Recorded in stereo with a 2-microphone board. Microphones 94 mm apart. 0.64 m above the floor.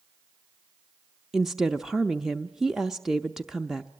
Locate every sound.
1.3 s a woman speaking: 5° right (ahead or behind), 0.6 m